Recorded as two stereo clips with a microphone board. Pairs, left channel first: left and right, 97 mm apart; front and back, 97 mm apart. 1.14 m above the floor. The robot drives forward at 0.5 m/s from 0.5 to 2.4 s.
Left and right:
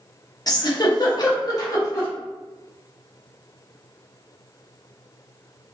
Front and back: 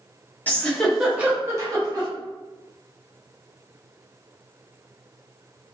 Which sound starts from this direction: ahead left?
A giggle, at 0.5 s.